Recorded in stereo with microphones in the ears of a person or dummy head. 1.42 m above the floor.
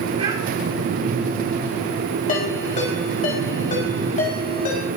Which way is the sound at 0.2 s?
40° right (ahead or behind).